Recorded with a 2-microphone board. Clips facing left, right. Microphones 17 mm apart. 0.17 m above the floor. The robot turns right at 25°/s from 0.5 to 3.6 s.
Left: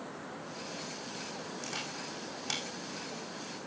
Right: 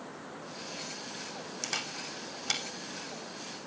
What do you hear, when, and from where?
1.6 s a camera shutter: 40° right (ahead or behind), 3 m; by 2.6 s 15° right (ahead or behind), 3 m